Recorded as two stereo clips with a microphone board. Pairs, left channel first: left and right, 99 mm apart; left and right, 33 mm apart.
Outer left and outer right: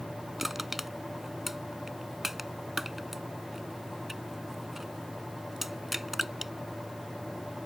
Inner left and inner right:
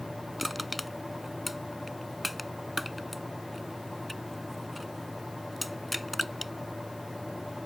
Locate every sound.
0.4 s crushing: 5° right (ahead or behind)